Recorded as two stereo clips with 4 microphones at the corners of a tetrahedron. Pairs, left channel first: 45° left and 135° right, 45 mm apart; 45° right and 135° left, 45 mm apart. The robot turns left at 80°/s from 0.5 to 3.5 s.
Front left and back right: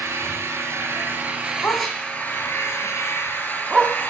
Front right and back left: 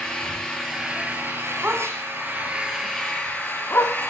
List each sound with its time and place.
0.0 s an engine running: 120° right, 4 m; by 4.1 s straight ahead, 4 m
1.6 s a dog barking: 90° left, 1.2 m; by 4.0 s 60° right, 1.2 m